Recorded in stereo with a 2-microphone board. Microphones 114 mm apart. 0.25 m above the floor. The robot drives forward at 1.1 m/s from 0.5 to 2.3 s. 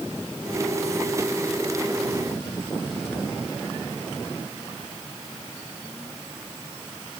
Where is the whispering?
No whispering in this recording.